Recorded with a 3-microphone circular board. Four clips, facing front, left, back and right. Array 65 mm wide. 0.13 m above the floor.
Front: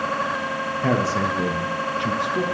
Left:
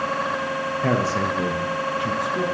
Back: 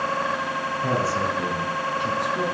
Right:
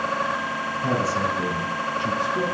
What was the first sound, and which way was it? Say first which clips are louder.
A man speaking: left 1 dB, front 3 dB; 55° left.